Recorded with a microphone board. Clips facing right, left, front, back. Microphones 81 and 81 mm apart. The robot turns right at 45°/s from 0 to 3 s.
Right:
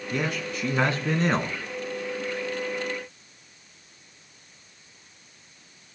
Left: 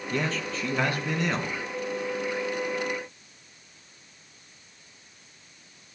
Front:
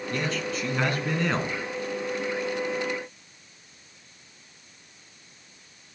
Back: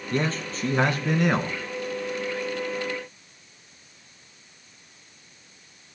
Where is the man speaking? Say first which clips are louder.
Even, back 3 dB; 170° right, 1.5 m; by 1.6 s 105° right, 1.5 m.